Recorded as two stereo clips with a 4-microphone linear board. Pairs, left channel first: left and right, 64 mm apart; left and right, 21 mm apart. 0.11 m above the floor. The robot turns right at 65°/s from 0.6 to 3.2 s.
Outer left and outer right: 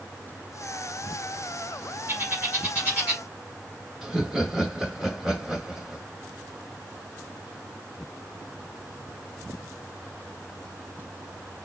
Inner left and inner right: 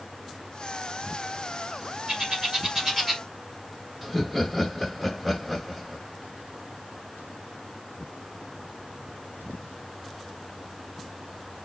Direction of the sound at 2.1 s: 40° right (ahead or behind).